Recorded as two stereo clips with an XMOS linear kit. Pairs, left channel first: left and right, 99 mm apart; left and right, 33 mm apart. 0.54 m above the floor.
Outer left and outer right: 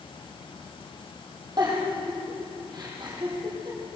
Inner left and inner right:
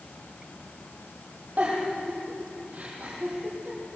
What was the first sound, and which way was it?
A giggle, 45° right (ahead or behind).